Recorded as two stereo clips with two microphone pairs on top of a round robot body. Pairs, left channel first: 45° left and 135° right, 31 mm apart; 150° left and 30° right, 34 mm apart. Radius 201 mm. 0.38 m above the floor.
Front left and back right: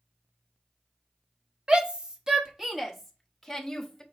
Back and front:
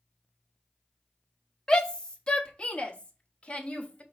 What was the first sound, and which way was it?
A shout, 165° right.